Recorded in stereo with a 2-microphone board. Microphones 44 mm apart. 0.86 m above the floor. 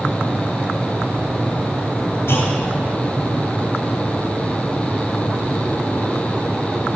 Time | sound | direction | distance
2.3 | a clunk | 65° left (ahead or behind) | 3 m